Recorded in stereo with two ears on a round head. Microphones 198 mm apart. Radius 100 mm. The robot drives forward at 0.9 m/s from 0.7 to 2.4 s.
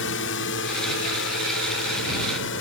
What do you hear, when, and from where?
0.0 s a drone: 55° left (ahead or behind)